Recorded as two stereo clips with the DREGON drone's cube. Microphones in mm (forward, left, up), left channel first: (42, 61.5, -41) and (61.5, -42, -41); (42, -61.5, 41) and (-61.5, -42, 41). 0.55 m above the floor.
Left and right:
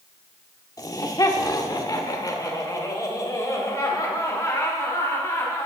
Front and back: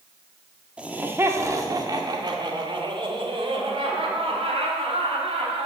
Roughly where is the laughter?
Left.